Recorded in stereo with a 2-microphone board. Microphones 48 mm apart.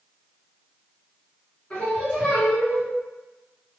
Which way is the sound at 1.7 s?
25° left (ahead or behind).